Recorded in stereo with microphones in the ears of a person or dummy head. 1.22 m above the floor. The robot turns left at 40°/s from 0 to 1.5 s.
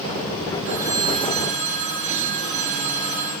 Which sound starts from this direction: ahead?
A phone ringing, at 0.7 s.